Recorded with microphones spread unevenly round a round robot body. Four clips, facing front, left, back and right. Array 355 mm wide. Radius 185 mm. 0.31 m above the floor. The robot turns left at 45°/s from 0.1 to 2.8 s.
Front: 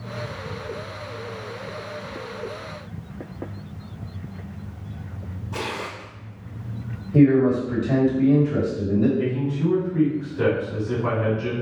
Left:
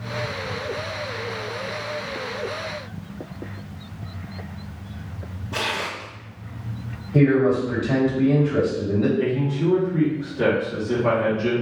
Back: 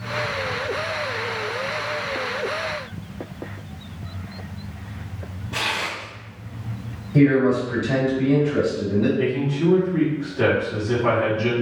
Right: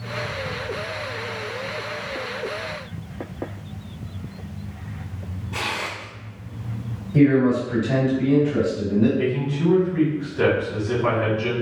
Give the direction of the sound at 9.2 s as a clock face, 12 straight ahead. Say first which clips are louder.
Left 1 dB, back 2 dB; 4 o'clock.